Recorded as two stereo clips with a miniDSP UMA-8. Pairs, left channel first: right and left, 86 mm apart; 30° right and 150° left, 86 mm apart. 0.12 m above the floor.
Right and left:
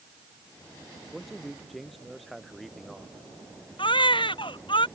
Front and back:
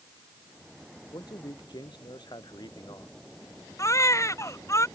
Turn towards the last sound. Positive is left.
turn(degrees=-85)